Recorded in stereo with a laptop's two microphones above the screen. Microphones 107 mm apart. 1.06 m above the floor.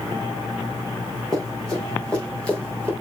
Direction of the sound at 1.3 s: 5° left (ahead or behind).